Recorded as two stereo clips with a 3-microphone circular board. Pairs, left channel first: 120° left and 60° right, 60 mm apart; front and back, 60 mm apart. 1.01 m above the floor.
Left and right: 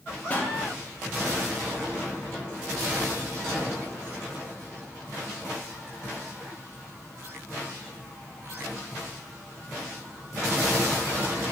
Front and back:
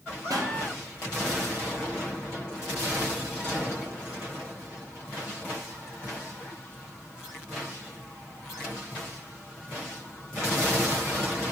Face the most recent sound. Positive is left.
turn(degrees=-175)